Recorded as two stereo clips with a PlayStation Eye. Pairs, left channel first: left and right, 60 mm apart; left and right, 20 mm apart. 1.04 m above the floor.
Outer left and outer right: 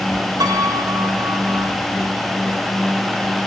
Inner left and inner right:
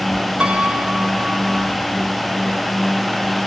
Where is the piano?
85° right, 2 m.